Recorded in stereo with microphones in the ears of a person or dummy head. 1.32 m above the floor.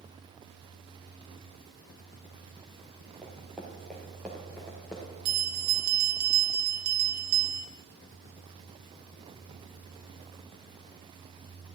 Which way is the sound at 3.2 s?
5° right (ahead or behind).